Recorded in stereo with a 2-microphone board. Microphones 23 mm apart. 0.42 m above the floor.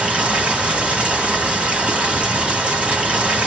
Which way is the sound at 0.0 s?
75° right (ahead or behind).